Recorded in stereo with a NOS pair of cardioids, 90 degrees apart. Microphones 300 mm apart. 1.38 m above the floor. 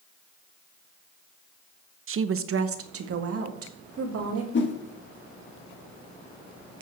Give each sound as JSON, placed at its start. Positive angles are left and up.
{"t": 2.1, "sound": "a woman speaking", "azimuth_deg": -45, "distance_m": 0.8}
{"t": 4.5, "sound": "a whoosh", "azimuth_deg": 40, "distance_m": 1.7}